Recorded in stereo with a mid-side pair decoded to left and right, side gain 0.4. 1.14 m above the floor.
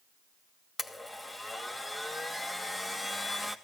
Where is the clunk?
No clunk in this recording.